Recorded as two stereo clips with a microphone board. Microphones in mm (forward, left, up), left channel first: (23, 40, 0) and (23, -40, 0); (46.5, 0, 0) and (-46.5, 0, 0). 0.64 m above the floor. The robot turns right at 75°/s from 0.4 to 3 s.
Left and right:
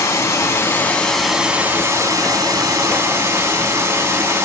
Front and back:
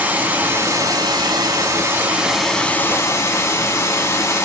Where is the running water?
120° left, 0.9 m; by 4.5 s 45° right, 0.9 m.